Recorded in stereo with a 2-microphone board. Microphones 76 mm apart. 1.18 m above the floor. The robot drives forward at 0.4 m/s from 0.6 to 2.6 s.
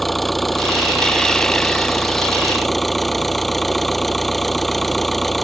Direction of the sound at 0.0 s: Centre (ahead or behind).